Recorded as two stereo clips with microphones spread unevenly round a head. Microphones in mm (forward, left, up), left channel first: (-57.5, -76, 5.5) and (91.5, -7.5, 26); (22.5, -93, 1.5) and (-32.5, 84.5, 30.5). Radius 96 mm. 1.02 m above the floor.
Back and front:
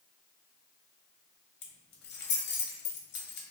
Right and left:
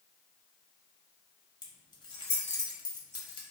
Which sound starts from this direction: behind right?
Keys jangling, at 1.6 s.